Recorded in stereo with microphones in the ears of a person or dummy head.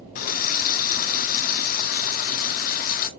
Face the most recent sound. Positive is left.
turn(degrees=50)  # may be behind; listen again after turning